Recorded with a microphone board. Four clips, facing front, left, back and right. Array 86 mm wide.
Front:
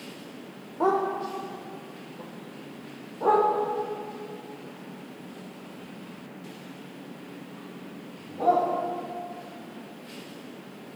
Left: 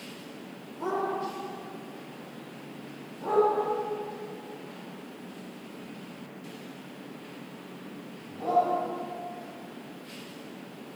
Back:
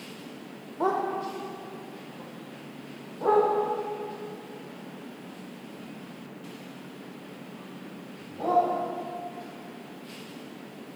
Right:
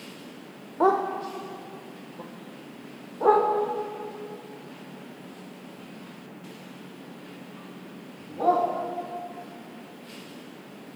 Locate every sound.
0.8 s a dog barking: 85° right, 1.7 m; by 8.6 s 80° right, 7 m